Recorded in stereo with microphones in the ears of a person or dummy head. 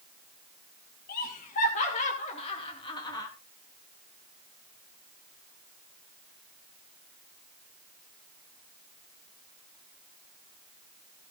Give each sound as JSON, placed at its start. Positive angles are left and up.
{"t": 1.1, "sound": "laughter", "side_deg": 45, "distance_m": 3.5}